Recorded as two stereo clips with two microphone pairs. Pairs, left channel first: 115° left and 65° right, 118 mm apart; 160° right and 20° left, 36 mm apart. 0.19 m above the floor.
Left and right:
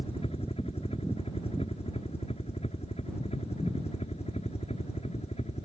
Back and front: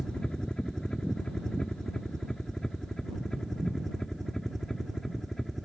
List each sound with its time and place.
0.0 s a helicopter: 135° left; by 5.7 s 115° left